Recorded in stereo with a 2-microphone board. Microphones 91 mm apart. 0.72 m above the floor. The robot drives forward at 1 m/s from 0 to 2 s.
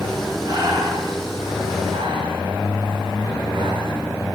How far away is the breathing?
About 1.6 m.